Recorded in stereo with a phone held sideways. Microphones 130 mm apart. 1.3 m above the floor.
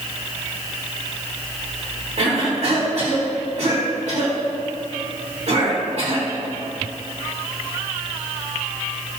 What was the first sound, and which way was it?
A cough, 55° right (ahead or behind).